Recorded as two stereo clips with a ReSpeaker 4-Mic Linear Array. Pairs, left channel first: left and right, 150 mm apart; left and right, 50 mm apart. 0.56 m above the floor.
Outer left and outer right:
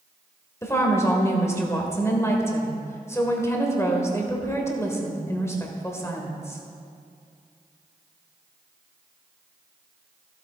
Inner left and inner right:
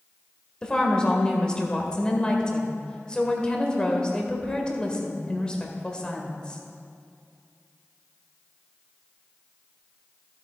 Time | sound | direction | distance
0.6 | a woman speaking | 20° left (ahead or behind) | 1.7 m